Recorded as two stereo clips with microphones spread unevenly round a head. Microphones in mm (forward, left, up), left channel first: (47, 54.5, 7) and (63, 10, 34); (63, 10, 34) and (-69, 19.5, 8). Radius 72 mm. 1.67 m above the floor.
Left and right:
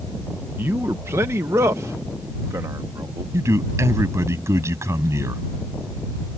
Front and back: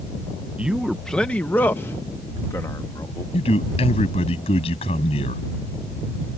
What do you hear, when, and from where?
0.6 s a man speaking: 95° right; by 3.2 s 70° right
3.3 s a man speaking: 55° right